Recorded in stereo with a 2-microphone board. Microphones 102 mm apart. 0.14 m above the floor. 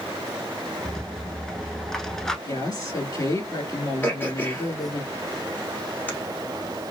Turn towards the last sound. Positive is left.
turn(degrees=20)  # may be behind; listen again after turning